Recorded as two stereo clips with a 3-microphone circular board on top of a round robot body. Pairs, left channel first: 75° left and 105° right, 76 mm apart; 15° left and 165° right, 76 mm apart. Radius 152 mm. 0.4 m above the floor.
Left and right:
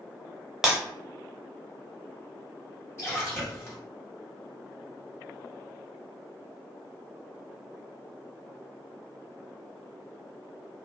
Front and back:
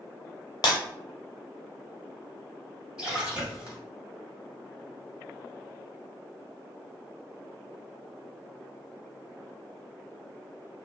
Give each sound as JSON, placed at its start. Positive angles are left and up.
{"t": 0.6, "sound": "breaking glass", "azimuth_deg": -20, "distance_m": 0.6}
{"t": 3.0, "sound": "a splash", "azimuth_deg": 120, "distance_m": 1.6}